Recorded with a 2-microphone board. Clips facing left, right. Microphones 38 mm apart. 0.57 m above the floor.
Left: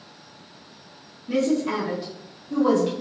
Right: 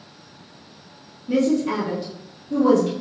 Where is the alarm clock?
I don't hear an alarm clock.